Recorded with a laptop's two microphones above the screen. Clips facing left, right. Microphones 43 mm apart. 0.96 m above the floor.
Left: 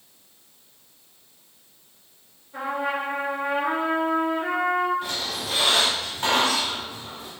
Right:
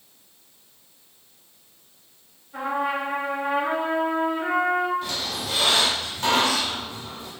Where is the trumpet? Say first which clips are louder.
Right 1 dB; 10° right (ahead or behind), 1.8 m.